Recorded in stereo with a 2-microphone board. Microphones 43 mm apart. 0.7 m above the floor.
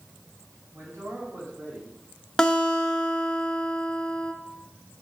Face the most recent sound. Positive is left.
turn(degrees=15)  # may be behind; listen again after turning